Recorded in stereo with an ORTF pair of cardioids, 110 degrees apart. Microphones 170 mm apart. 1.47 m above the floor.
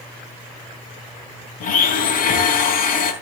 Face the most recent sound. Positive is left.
turn(degrees=60)